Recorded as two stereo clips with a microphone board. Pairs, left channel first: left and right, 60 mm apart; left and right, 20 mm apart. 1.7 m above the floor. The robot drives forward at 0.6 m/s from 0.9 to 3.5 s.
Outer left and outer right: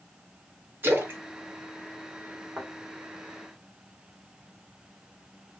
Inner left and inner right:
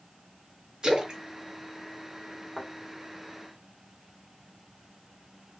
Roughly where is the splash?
Right.